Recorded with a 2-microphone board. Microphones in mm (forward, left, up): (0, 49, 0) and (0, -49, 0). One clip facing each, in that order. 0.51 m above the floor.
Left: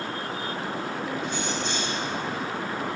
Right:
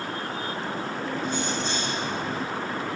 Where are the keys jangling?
35° right (ahead or behind), 2.5 m.